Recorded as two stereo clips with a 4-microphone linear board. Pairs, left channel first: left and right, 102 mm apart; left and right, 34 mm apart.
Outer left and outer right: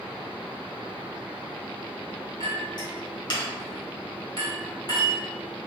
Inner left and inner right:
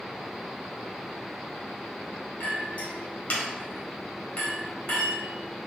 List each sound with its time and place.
2.4 s a clink: 50° left (ahead or behind), 1.4 m